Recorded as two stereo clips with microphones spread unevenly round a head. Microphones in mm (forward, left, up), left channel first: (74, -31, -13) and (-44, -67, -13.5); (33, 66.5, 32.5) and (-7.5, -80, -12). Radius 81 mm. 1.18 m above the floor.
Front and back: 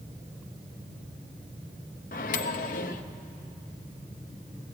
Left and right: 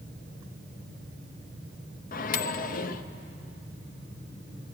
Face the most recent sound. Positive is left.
turn(degrees=50)